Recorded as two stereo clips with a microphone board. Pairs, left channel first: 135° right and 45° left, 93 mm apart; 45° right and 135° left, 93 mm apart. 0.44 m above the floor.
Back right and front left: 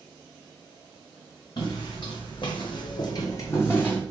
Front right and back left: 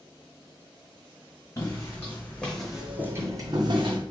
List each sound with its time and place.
1.6 s footsteps: 100° right, 1.3 m; by 4.0 s 150° left, 1.0 m